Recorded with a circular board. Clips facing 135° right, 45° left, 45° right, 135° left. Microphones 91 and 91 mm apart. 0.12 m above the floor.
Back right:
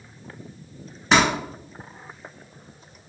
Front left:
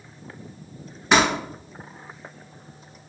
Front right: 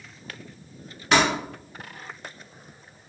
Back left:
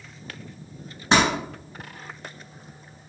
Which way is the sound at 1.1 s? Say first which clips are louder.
Even, back left 1 dB; 130° left.